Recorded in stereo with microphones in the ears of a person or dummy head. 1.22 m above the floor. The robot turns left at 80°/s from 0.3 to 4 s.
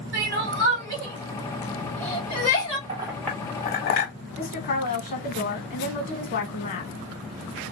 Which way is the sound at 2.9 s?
25° right (ahead or behind).